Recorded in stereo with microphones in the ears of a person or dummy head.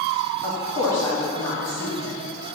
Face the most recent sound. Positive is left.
turn(degrees=10)  # may be behind; listen again after turning